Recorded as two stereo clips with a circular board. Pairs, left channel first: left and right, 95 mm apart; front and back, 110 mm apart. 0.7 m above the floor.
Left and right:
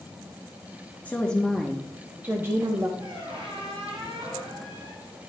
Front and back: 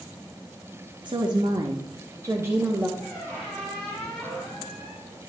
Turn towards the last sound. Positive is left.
turn(degrees=-90)